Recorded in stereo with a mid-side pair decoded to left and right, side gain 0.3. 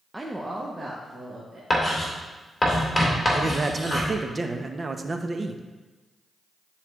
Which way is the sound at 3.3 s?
40° right.